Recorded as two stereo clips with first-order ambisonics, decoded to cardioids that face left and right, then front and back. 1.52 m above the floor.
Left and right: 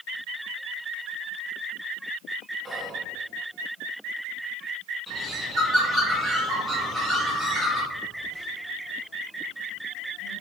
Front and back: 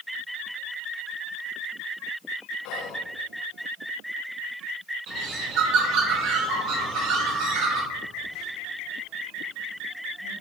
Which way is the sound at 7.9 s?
165° right.